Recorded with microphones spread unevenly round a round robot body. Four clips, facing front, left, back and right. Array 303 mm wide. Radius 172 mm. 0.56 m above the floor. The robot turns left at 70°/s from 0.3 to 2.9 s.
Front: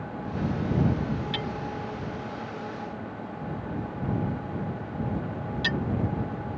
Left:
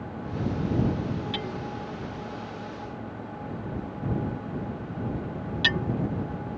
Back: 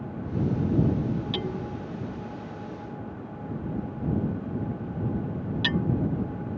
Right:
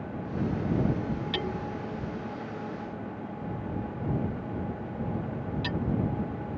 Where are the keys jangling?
I don't hear keys jangling.